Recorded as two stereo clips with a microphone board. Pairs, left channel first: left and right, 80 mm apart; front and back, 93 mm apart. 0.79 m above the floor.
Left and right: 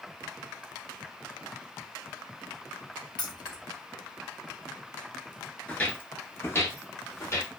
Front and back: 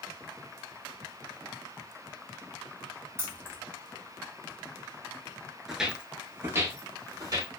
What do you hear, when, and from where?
3.2 s keys jangling: 120° left, 0.8 m
5.7 s footsteps: 100° left, 0.7 m; by 7.5 s 140° left, 1.4 m